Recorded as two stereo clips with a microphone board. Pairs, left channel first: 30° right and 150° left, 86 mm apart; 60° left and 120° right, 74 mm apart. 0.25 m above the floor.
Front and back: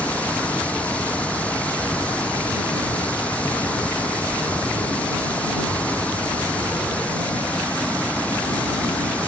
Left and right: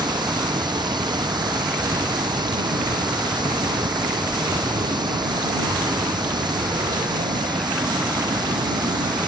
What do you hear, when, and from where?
0.0 s running water: 105° right